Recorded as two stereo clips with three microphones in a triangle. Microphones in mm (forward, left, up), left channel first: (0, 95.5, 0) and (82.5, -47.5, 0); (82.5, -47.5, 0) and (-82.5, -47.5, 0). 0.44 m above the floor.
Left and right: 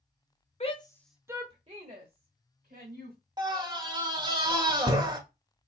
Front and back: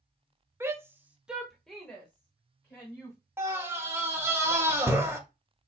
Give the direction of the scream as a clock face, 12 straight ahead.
4 o'clock.